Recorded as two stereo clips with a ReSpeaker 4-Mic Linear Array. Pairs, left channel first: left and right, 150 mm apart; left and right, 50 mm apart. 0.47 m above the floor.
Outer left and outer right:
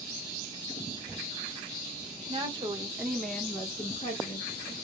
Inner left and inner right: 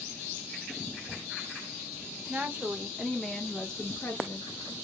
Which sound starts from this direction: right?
A woman speaking, at 2.3 s.